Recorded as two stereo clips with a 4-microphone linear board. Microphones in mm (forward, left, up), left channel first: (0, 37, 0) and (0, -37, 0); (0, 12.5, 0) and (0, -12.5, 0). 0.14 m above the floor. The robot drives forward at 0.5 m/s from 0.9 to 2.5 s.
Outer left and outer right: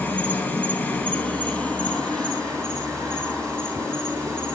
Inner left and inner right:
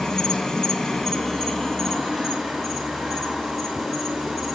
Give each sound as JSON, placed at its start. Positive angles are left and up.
{"t": 0.0, "sound": "an insect", "side_deg": 30, "distance_m": 0.9}